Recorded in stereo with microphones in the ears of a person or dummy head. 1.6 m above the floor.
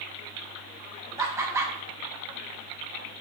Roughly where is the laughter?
Centre.